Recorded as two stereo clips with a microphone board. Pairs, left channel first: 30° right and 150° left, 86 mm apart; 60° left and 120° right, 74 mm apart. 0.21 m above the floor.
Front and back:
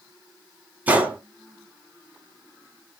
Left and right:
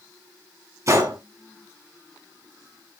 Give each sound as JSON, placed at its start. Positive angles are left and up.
{"t": 0.9, "sound": "a gunshot", "azimuth_deg": -145, "distance_m": 1.9}